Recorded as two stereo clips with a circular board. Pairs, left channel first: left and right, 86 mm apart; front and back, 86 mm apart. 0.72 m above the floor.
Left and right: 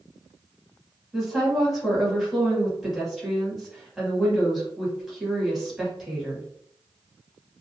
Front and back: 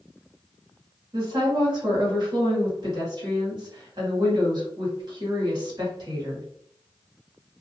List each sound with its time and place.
1.1 s a woman speaking: 175° right, 1.5 m